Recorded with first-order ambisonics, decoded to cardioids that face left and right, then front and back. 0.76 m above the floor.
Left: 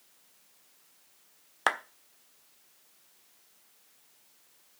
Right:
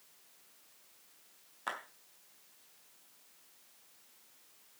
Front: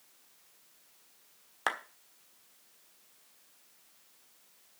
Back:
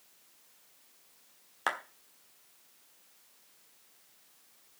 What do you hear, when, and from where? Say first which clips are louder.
1.7 s a clap: left 12 dB, even; 85° left, 1.3 m